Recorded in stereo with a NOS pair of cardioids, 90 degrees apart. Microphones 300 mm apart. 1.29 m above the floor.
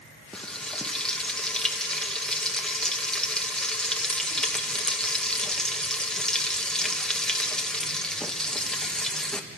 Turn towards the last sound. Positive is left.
turn(degrees=5)